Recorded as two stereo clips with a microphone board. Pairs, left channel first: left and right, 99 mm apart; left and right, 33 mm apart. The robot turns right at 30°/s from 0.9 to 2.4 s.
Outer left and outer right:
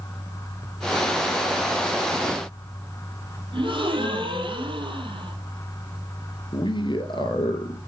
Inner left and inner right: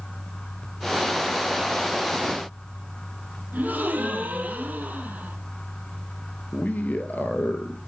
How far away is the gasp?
About 3 m.